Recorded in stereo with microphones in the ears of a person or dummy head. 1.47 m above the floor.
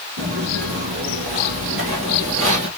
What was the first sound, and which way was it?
Footsteps, 40° right (ahead or behind).